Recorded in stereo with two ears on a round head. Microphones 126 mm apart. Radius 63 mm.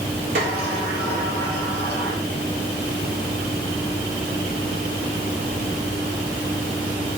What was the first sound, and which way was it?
A sliding door, 75° right (ahead or behind).